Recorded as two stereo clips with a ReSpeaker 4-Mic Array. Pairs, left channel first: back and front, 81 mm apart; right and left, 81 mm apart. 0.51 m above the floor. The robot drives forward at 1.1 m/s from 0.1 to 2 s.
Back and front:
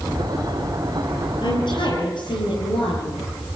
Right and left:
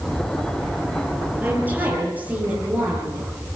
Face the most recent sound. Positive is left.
turn(degrees=160)